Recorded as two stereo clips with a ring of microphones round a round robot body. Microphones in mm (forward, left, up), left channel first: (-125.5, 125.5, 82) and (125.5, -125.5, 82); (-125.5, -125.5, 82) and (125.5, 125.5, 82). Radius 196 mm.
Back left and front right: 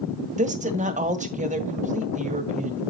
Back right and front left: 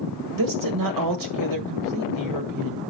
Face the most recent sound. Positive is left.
turn(degrees=25)